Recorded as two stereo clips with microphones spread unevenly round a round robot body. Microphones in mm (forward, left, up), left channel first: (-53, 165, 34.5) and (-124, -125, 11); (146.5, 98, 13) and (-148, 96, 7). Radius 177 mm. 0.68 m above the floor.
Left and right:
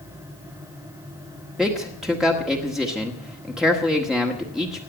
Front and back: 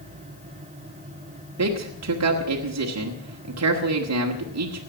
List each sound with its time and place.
1.6 s a man speaking: 170° left, 1.7 m